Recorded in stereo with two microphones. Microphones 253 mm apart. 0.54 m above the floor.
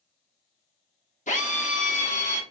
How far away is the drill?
About 1.2 m.